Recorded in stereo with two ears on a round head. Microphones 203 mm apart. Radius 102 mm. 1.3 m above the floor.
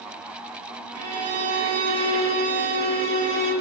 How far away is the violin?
About 4.5 m.